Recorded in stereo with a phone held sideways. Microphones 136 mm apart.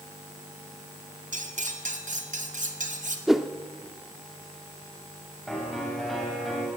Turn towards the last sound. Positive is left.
turn(degrees=0)  # may be behind; listen again after turning